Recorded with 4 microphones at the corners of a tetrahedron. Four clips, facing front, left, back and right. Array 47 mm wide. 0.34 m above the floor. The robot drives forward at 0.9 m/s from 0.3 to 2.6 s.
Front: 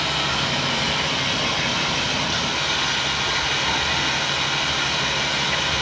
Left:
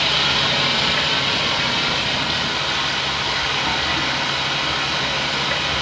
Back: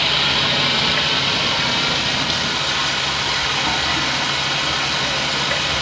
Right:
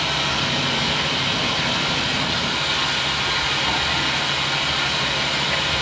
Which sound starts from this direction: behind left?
Running water, at 0.0 s.